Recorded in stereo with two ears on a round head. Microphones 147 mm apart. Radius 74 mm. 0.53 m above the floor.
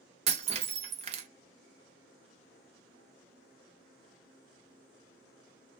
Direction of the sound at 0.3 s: 40° right (ahead or behind).